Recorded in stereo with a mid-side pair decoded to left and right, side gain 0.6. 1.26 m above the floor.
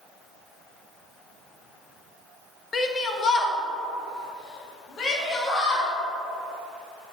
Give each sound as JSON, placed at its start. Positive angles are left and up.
{"t": 2.7, "sound": "a shout", "azimuth_deg": 30, "distance_m": 0.9}